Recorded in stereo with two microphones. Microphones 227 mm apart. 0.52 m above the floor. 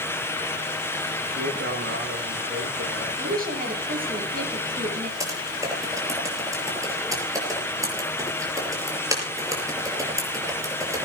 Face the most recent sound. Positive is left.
turn(degrees=-15)  # may be behind; listen again after turning